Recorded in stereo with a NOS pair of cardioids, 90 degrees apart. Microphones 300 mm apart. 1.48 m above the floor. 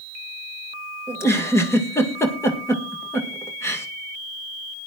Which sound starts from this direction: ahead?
A giggle, at 1.1 s.